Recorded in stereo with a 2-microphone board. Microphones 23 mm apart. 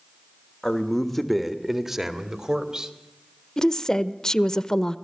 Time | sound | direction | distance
0.6 | a man speaking | 25° left (ahead or behind) | 1.5 m
3.6 | a woman speaking | 30° left (ahead or behind) | 0.8 m